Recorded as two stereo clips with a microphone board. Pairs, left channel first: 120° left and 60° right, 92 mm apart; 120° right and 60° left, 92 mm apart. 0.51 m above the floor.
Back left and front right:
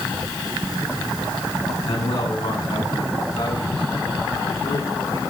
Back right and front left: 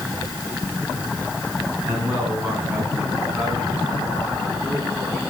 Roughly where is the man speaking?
Behind left.